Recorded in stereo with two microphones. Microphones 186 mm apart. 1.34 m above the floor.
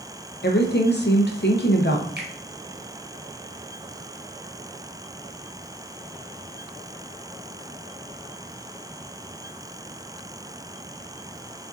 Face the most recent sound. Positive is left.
turn(degrees=-65)  # may be behind; listen again after turning